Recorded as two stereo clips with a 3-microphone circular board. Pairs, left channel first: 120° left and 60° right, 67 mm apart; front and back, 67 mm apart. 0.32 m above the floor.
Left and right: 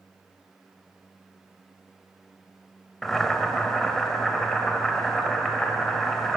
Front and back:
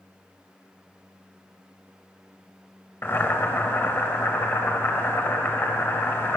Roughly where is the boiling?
Ahead left.